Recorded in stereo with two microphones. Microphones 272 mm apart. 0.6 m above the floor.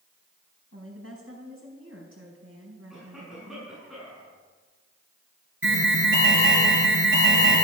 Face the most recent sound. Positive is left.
turn(degrees=-50)  # may be behind; listen again after turning